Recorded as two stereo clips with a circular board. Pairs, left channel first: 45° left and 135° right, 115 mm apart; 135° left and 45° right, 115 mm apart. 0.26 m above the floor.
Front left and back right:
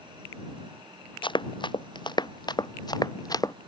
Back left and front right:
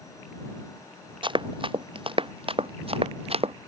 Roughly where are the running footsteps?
Ahead.